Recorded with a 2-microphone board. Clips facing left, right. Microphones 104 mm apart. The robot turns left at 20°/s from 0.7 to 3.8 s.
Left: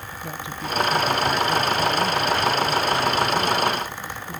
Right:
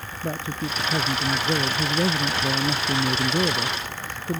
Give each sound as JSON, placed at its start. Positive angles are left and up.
{"t": 0.2, "sound": "a man speaking", "azimuth_deg": -40}